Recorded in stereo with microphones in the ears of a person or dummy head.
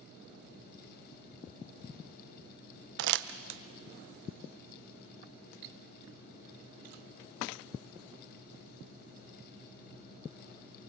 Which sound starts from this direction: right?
Crumpling, at 3.0 s.